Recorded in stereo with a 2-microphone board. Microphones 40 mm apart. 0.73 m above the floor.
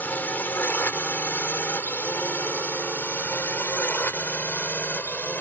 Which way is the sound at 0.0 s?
55° left (ahead or behind).